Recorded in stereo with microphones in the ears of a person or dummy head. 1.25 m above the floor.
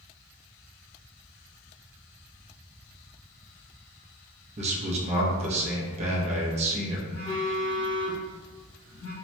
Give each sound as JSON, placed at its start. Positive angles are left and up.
{"t": 4.6, "sound": "a man speaking", "side_deg": -40, "distance_m": 0.6}
{"t": 7.1, "sound": "a phone buzzing", "side_deg": 40, "distance_m": 1.0}